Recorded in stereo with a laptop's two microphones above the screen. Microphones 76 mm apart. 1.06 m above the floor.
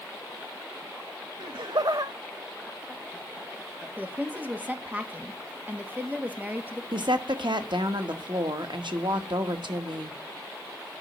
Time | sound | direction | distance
1.4 | laughter | 80° right | 0.6 m
4.0 | a woman speaking | 20° right (ahead or behind) | 1.7 m
6.9 | a woman speaking | 80° right | 1.3 m